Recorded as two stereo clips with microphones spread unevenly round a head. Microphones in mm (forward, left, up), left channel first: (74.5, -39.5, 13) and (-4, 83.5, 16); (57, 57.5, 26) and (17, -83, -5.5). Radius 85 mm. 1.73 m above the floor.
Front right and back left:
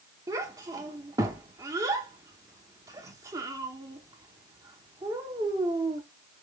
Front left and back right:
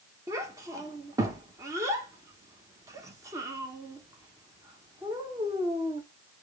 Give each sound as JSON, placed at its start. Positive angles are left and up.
{"t": 0.3, "sound": "a child speaking", "azimuth_deg": 175, "distance_m": 1.0}